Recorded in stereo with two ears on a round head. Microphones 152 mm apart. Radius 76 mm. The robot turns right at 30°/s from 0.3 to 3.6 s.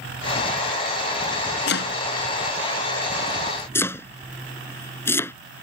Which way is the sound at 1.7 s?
70° left (ahead or behind).